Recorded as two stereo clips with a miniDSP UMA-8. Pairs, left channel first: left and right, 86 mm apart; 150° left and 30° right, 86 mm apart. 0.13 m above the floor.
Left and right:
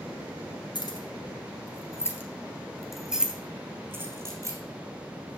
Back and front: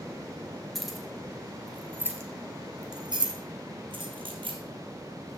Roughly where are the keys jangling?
Ahead left.